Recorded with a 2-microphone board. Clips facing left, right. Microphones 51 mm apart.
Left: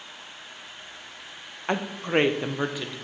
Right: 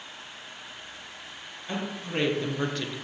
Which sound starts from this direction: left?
A woman speaking, at 1.7 s.